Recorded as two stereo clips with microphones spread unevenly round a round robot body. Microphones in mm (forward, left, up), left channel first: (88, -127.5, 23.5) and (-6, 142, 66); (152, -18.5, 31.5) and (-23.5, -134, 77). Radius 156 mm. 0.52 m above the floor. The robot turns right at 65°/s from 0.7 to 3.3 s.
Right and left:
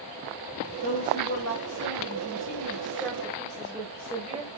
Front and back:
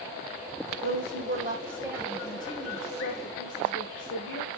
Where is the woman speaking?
135° right, 3.5 m; by 4.5 s 25° left, 3.5 m.